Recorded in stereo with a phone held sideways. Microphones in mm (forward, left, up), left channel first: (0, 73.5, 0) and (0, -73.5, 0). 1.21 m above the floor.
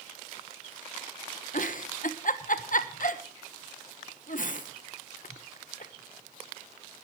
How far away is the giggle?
About 1.1 m.